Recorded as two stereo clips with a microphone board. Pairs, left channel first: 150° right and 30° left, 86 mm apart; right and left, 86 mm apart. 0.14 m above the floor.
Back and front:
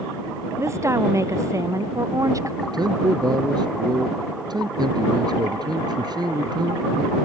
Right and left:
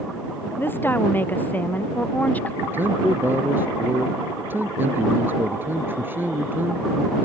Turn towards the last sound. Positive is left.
turn(degrees=30)